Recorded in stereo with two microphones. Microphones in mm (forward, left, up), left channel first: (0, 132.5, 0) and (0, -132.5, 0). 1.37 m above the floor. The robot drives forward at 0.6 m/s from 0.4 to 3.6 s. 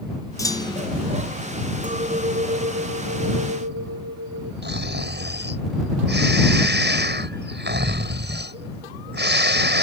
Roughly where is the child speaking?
I don't hear a child speaking.